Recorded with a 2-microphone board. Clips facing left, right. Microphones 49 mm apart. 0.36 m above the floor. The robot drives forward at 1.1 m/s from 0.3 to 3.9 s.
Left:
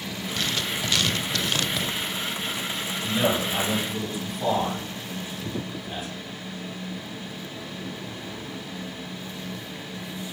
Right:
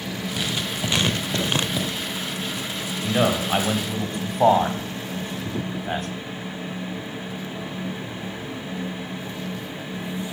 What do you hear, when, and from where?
0.4 s writing: 15° right (ahead or behind), 1.2 m; by 1.9 s 20° right (ahead or behind), 0.8 m
3.0 s a man speaking: 50° right (ahead or behind), 2 m; by 6.1 s 60° right (ahead or behind), 1.7 m